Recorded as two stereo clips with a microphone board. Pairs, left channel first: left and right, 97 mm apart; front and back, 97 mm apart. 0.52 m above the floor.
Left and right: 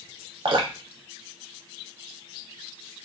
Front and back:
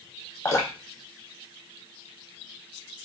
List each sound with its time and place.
0.5 s dripping: 60° right, 0.7 m